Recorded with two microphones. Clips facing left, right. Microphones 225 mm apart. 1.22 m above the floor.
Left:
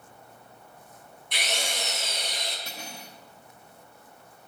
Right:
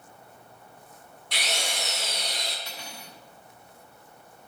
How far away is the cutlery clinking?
About 1.3 m.